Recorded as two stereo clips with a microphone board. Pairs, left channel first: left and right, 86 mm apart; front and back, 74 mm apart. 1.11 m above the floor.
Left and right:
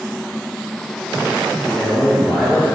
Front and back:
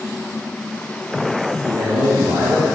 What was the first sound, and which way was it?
A man speaking, 165° left.